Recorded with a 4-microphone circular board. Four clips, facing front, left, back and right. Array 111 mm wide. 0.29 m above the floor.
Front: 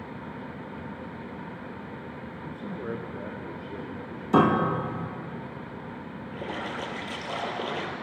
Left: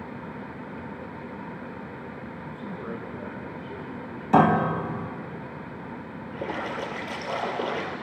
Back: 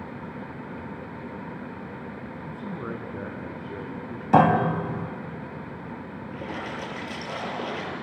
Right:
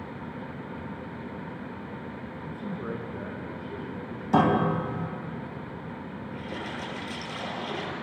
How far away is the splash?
About 7.5 m.